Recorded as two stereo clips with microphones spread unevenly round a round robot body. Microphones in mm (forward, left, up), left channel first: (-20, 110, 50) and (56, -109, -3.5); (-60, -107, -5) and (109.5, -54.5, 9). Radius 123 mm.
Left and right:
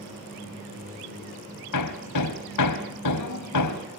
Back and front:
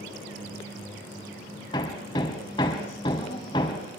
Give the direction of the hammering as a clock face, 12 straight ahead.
8 o'clock.